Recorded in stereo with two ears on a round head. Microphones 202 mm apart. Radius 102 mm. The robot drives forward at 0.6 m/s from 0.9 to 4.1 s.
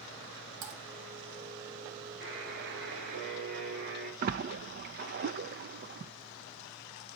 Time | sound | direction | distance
0.6 | typing on a keyboard | 75° right (ahead or behind) | 4 m
2.2 | a buzzer | 50° right (ahead or behind) | 7.5 m
4.2 | a splash | 40° right (ahead or behind) | 0.5 m